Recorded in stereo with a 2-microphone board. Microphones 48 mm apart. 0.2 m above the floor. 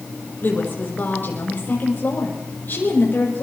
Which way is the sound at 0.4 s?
45° left (ahead or behind).